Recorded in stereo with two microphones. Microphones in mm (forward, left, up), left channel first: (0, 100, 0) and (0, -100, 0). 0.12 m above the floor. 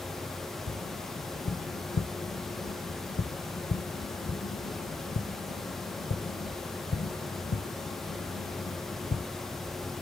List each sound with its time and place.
0.7 s tapping: 60° left (ahead or behind), 0.8 m